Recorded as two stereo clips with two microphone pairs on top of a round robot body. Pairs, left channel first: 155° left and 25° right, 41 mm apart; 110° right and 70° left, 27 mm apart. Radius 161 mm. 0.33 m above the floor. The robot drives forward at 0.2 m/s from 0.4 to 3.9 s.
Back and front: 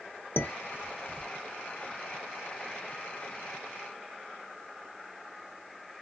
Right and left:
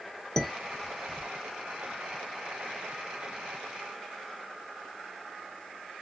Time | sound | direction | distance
0.4 | dishes clattering | 175° left | 1.2 m